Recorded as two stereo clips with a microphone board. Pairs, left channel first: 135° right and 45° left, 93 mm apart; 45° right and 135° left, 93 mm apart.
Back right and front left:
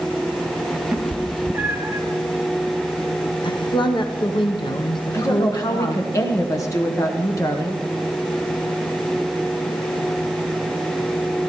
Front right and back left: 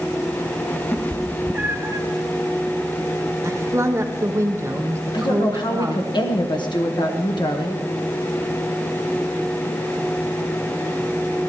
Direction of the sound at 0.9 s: 15° right.